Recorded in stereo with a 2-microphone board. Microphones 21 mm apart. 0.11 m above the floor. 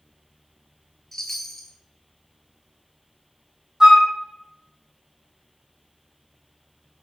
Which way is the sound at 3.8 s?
35° right (ahead or behind).